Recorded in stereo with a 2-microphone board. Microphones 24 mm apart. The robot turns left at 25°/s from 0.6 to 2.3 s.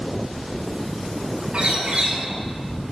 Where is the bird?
40° right (ahead or behind), 5.5 m; by 2.2 s 55° right (ahead or behind), 5.5 m.